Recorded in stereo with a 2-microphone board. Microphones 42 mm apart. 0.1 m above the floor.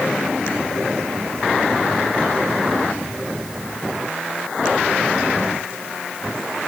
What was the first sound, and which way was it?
Only background noise.